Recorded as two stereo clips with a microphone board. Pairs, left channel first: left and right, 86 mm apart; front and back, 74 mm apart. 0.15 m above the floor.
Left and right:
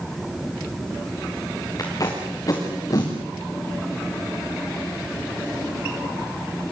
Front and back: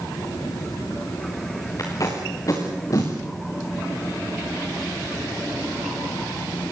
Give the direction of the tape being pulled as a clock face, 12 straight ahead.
11 o'clock.